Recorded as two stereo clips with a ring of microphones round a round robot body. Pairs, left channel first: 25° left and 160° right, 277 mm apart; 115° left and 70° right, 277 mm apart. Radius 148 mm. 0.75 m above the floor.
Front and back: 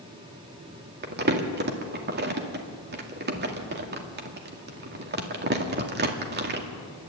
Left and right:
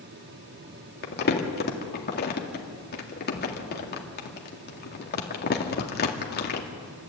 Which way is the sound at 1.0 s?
160° left.